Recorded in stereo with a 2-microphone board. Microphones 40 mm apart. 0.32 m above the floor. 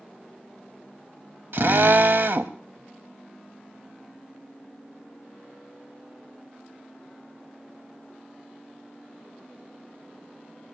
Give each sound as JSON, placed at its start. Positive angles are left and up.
{"t": 1.5, "sound": "a drill", "side_deg": -65, "distance_m": 0.6}